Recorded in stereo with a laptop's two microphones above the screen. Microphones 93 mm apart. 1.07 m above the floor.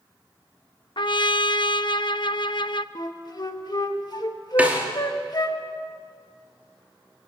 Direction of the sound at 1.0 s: 55° left (ahead or behind).